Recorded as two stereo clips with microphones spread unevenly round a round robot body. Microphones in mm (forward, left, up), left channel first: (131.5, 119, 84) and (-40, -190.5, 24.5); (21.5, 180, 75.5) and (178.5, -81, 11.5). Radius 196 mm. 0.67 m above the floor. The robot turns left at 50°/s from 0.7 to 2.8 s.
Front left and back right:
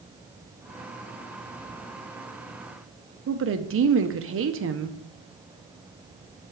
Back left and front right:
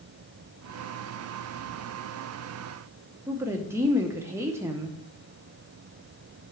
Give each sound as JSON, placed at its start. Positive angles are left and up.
{"t": 3.3, "sound": "a woman speaking", "azimuth_deg": -125, "distance_m": 0.6}